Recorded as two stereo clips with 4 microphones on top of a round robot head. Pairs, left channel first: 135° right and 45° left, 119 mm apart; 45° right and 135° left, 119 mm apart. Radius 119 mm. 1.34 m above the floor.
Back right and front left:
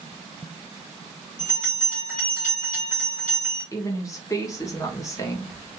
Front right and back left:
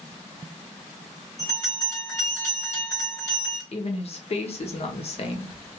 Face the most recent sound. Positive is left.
turn(degrees=-75)